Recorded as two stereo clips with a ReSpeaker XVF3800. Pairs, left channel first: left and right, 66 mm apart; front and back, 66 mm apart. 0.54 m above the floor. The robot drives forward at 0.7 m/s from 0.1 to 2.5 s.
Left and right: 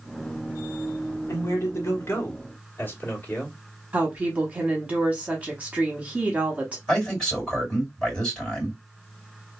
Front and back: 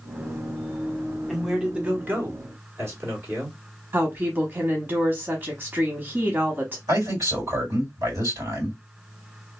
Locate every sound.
1.3 s a man speaking: 95° left, 1.0 m; by 3.6 s 140° left, 1.3 m
3.9 s a woman speaking: 145° right, 0.9 m
6.9 s a man speaking: 175° left, 2.5 m